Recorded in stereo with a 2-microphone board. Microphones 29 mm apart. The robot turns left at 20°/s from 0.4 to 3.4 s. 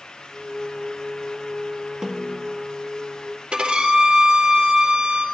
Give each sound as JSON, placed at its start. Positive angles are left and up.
{"t": 2.0, "sound": "a snare drum", "side_deg": -25, "distance_m": 1.5}
{"t": 3.5, "sound": "a violin", "side_deg": -45, "distance_m": 3.0}